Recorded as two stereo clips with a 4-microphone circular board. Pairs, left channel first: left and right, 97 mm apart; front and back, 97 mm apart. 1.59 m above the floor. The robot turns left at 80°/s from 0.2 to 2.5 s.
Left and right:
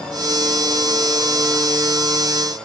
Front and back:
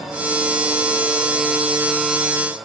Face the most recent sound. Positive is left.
No sound to turn to.